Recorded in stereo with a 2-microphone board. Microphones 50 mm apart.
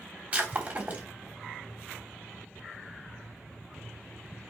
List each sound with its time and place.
0.3 s breaking glass: 25° right (ahead or behind), 3.5 m